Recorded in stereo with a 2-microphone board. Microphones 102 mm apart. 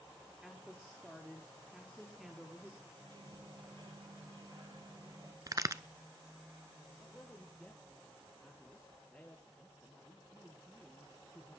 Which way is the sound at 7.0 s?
10° left (ahead or behind).